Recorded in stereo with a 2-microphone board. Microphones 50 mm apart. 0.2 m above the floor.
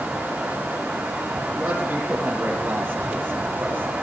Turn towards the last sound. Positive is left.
turn(degrees=-45)  # may be behind; listen again after turning